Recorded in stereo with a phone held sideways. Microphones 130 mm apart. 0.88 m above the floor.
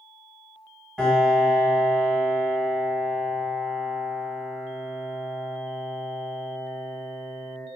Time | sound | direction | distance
1.0 | a piano | centre (ahead or behind) | 1.1 m